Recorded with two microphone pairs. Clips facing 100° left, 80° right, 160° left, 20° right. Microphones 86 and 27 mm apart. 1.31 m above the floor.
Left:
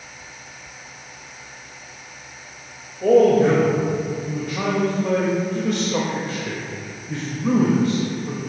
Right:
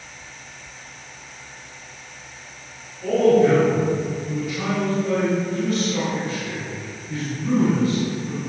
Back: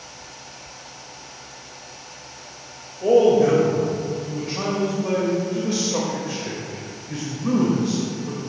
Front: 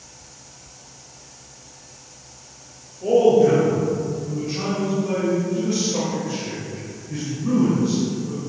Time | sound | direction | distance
3.0 | a man speaking | 105° left | 2.5 m